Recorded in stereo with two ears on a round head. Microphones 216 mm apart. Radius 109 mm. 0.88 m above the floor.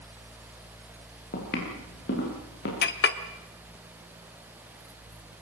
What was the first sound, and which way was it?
Footsteps, 40° left (ahead or behind).